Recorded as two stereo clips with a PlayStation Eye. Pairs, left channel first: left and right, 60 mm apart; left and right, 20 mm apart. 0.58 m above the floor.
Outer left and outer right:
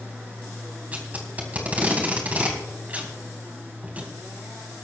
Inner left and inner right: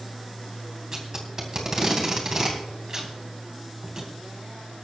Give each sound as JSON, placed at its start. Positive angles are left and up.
{"t": 0.9, "sound": "tape being pulled", "side_deg": -25, "distance_m": 3.0}